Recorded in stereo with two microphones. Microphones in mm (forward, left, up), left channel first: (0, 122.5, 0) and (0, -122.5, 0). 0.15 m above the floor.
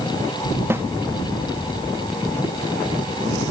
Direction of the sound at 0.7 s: 10° right (ahead or behind).